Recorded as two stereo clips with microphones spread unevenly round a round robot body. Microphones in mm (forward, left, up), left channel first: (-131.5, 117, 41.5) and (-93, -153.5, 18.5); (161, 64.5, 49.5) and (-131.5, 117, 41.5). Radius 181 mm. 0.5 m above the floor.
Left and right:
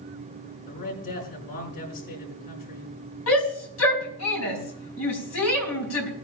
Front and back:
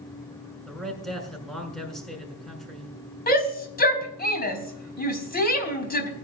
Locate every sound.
0.7 s a man speaking: 80° left, 6.5 m
3.3 s a shout: 50° left, 5 m